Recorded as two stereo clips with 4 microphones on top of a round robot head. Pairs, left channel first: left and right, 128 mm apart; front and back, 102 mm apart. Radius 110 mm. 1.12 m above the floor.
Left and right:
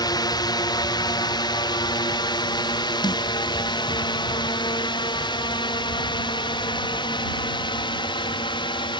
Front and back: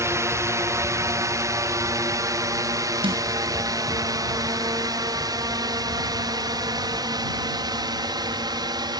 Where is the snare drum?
145° left.